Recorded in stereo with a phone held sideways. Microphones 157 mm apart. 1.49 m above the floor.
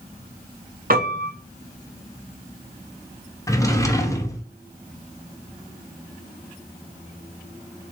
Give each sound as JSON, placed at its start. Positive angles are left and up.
{"t": 0.9, "sound": "a piano", "side_deg": -60, "distance_m": 0.7}
{"t": 3.5, "sound": "a drawer", "side_deg": 20, "distance_m": 0.5}